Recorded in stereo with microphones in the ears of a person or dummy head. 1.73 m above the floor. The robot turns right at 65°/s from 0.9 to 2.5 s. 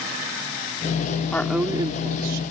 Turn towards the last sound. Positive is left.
turn(degrees=-120)